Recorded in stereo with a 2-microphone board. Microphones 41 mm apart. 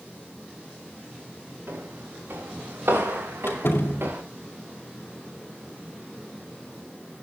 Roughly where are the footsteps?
Right.